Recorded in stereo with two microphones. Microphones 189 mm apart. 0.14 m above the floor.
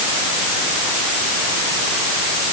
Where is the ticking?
No ticking in this recording.